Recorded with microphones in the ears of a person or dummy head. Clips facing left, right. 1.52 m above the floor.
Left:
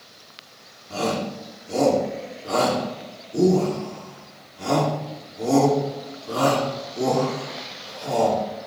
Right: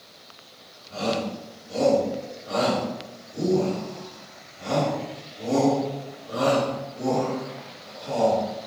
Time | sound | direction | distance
0.9 | a shout | 70° left (ahead or behind) | 4.5 m